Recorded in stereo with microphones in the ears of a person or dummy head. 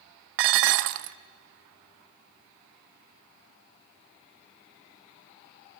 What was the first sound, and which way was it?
Dishes clattering, 55° right (ahead or behind).